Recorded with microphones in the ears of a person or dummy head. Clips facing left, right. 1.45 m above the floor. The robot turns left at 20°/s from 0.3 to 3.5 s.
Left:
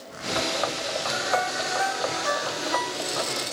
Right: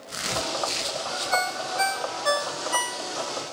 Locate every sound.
1.3 s a ringtone: 25° right (ahead or behind), 0.5 m; by 3.4 s 55° right (ahead or behind), 0.5 m